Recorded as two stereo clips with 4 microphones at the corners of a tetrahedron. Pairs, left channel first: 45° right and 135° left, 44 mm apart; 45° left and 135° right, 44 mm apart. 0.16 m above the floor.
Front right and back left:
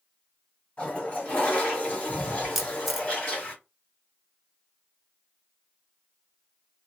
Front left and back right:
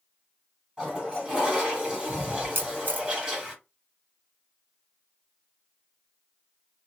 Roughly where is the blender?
I don't hear a blender.